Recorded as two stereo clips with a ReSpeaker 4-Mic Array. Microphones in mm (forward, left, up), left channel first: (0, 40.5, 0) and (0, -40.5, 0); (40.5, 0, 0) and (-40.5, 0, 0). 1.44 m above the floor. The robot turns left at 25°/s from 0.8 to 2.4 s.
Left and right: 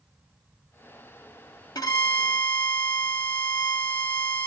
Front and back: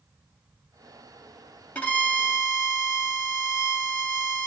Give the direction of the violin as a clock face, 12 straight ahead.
10 o'clock.